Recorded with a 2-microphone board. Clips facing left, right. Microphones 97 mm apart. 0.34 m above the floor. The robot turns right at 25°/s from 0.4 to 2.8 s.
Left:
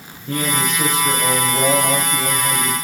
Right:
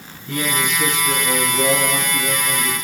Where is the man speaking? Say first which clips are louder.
Left 1 dB; 50° left, 2.5 m; by 2.8 s 105° left, 2.5 m.